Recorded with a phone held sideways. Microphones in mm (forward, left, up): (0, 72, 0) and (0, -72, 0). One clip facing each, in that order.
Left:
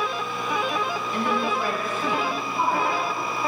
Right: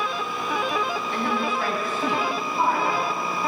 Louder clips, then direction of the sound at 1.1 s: Left 2 dB; 85° right.